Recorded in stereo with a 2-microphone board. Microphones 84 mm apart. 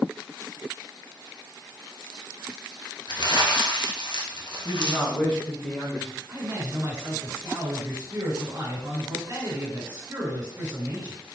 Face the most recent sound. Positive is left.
turn(degrees=-45)  # may be behind; listen again after turning